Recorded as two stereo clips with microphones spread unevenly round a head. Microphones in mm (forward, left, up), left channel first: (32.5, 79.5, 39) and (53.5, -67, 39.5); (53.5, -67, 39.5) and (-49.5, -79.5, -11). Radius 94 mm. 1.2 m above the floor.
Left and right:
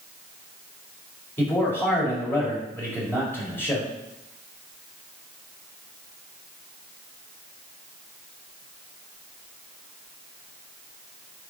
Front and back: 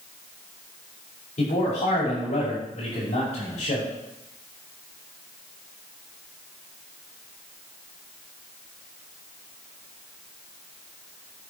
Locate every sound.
1.4 s a man speaking: 25° left, 5 m